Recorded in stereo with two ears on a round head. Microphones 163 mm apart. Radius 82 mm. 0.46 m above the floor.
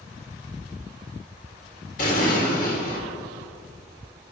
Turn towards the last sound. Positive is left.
turn(degrees=45)  # may be behind; listen again after turning